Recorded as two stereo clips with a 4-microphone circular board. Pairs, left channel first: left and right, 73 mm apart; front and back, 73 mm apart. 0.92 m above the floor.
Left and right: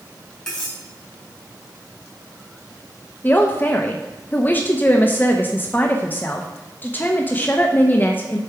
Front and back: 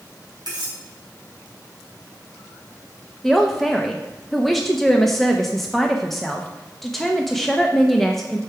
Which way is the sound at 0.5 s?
170° left.